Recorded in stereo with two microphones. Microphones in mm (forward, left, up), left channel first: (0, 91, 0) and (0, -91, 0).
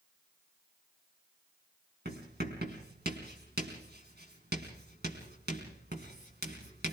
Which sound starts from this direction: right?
Writing, at 2.0 s.